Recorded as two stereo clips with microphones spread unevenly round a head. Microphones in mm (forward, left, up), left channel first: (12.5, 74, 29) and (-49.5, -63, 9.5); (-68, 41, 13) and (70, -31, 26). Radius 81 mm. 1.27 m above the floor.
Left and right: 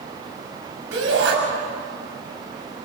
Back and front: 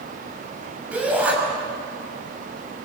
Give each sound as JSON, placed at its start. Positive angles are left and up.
{"t": 0.9, "sound": "a shout", "azimuth_deg": -110, "distance_m": 7.0}